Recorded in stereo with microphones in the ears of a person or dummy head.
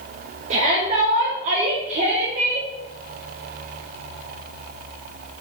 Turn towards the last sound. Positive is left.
turn(degrees=-40)  # may be behind; listen again after turning